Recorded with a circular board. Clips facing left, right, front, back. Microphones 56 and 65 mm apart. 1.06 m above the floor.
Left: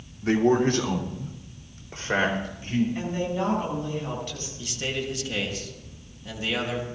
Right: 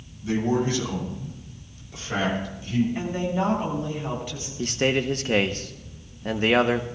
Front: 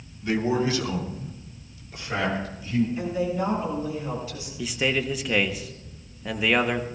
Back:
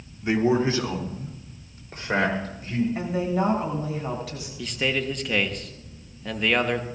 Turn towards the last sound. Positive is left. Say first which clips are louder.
# right 8 dB, front 1 dB
turn(degrees=-85)